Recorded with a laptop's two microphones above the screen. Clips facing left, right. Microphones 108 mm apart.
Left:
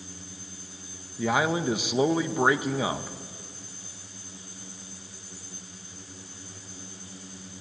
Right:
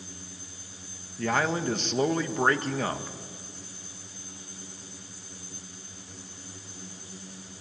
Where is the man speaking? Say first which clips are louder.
Left 2 dB; 10° left (ahead or behind), 0.7 m.